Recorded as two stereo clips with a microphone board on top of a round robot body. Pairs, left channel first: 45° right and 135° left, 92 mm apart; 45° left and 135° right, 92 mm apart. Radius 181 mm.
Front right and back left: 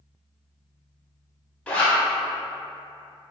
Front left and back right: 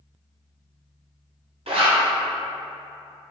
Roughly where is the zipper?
Behind right.